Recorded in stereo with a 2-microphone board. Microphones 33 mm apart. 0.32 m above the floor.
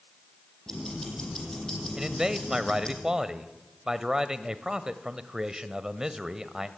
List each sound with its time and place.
0.7 s ticking: 15° left (ahead or behind), 6 m
2.0 s a man speaking: 15° right (ahead or behind), 1.3 m